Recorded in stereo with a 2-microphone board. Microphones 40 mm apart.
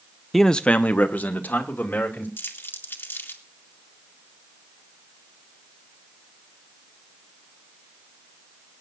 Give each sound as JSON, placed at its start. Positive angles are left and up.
{"t": 0.3, "sound": "a man speaking", "side_deg": 0, "distance_m": 0.5}
{"t": 2.4, "sound": "crumpling", "side_deg": 65, "distance_m": 1.7}